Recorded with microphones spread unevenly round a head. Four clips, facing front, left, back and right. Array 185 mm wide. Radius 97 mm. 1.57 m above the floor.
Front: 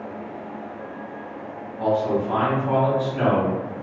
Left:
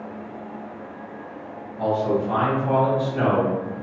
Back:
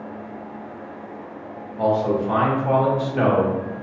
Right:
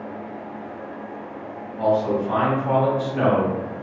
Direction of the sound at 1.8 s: 170° right.